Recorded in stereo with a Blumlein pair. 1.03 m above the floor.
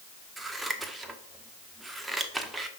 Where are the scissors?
10° right, 1.1 m.